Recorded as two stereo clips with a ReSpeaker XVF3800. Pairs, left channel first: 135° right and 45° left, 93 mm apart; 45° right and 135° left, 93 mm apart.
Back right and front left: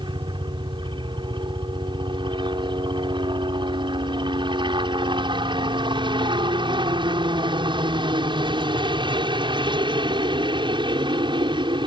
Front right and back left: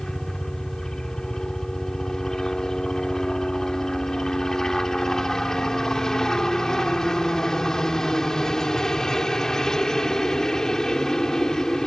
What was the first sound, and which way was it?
A helicopter, 40° left.